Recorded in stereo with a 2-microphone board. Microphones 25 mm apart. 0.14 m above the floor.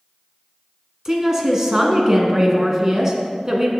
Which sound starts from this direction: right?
A woman speaking, at 1.1 s.